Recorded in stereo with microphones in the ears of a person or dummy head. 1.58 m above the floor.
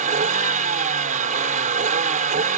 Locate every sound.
0.0 s a vehicle: 40° right (ahead or behind)